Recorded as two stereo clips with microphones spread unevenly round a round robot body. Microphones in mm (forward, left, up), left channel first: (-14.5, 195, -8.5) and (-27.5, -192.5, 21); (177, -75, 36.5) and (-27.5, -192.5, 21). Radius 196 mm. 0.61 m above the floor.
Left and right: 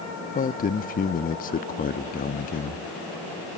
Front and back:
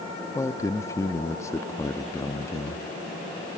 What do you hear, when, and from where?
0.3 s a man speaking: 100° left, 0.6 m